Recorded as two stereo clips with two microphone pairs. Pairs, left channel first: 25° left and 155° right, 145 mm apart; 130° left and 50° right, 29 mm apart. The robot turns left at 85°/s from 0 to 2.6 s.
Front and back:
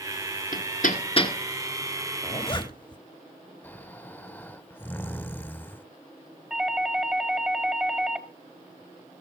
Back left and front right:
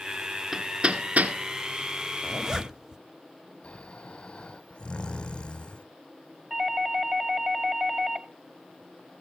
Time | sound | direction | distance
0.5 | hammering | 35° left | 1.8 m
2.2 | a zipper | 35° left | 1.2 m
3.6 | snoring | 95° left | 0.7 m
6.5 | a doorbell | 70° right | 1.9 m